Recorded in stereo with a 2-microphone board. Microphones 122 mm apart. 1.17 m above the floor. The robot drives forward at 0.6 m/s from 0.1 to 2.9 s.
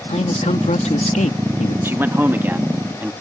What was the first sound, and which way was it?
A man speaking, 65° left (ahead or behind).